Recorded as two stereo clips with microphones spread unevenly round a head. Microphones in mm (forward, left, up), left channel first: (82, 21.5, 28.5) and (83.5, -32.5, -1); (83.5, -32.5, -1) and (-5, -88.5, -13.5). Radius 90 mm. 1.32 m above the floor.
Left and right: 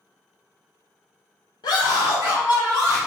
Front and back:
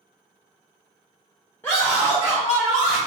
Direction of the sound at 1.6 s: 115° left.